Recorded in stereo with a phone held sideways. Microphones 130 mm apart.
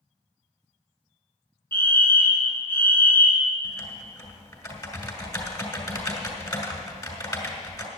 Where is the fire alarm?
15° left (ahead or behind), 1.8 m.